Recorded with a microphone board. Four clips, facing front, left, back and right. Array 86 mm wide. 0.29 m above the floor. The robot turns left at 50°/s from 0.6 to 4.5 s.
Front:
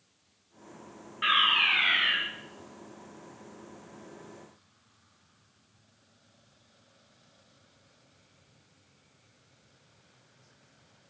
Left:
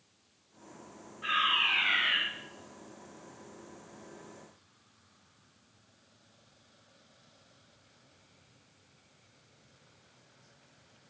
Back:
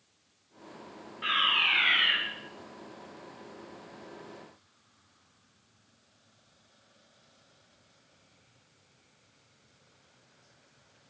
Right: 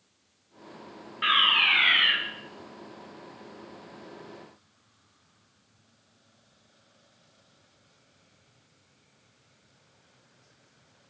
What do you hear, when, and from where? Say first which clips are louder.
1.2 s a fire alarm: right 5 dB, front 3 dB; 55° right, 4 m; by 2.2 s 105° right, 4 m